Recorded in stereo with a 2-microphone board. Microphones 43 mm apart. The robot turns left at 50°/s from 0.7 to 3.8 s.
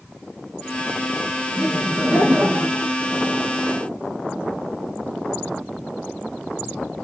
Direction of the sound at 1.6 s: 10° right.